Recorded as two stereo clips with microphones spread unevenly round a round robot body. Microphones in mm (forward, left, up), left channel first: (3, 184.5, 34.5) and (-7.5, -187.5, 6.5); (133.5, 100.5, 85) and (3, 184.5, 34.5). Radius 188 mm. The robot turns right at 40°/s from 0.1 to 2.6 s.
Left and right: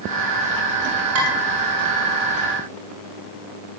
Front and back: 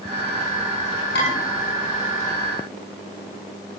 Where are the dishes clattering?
35° right, 6 m; by 1.3 s 30° right, 6 m.